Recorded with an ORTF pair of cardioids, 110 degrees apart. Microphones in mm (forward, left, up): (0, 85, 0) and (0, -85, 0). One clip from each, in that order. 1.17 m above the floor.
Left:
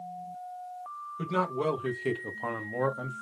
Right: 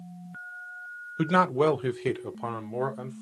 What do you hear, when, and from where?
1.2 s a man speaking: 55° right, 0.9 m; by 3.2 s straight ahead, 1.3 m